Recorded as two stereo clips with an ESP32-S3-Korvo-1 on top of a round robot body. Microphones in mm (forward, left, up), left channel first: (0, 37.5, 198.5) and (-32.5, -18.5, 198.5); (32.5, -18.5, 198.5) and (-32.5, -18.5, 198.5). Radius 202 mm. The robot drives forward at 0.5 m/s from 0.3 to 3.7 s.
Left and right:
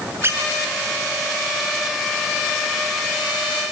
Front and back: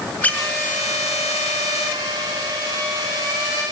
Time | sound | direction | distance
0.2 | a squeak | 65° right | 5 m